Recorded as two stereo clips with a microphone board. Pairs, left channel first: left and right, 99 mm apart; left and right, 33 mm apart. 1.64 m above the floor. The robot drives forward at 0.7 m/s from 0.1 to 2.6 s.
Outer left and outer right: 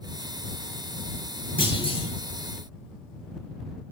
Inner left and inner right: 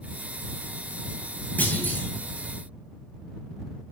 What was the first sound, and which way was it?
A clunk, 60° left (ahead or behind).